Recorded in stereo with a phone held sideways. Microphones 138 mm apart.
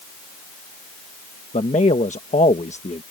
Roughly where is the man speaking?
Left.